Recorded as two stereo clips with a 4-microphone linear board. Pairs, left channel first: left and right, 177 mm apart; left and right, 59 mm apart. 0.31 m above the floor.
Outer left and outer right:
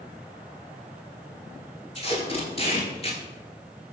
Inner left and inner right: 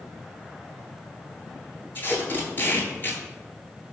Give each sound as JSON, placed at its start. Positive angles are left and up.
{"t": 1.9, "sound": "tape being pulled", "side_deg": 35, "distance_m": 0.8}